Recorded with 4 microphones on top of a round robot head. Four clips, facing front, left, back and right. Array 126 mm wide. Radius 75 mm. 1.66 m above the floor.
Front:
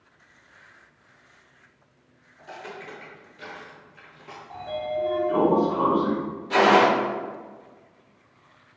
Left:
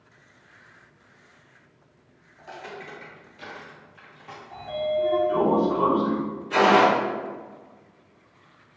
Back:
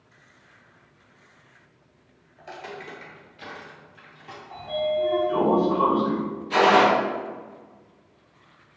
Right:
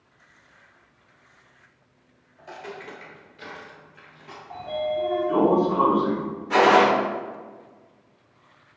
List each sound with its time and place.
2.4 s footsteps: 175° right, 1.8 m; by 4.4 s 45° right, 2 m
4.5 s a sliding door: 60° right, 0.9 m
6.5 s a gunshot: 70° right, 0.8 m